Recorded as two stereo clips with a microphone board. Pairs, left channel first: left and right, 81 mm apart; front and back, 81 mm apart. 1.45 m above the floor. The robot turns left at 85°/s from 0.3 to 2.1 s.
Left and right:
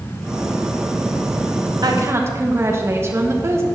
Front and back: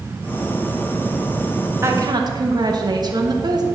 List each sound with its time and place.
1.8 s a woman speaking: 125° right, 1.3 m; by 3.6 s 145° right, 1.3 m